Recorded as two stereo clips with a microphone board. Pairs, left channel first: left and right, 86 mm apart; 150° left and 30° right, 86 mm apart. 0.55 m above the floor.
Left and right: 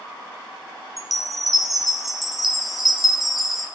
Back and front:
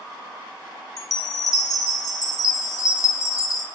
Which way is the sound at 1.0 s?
175° right.